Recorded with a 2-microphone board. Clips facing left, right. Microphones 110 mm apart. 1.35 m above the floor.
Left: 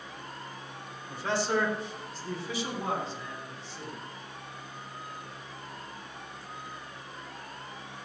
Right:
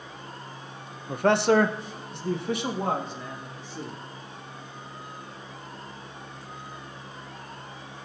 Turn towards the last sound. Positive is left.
turn(degrees=-50)  # may be behind; listen again after turning